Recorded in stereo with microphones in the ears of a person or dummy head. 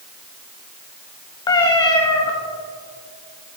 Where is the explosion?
No explosion in this recording.